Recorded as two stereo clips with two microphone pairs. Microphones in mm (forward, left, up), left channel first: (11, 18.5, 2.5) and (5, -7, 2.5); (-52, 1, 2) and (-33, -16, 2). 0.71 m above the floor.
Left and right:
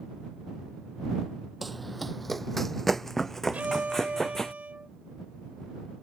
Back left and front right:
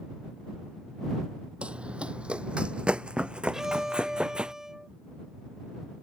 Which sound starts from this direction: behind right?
A violin, at 3.5 s.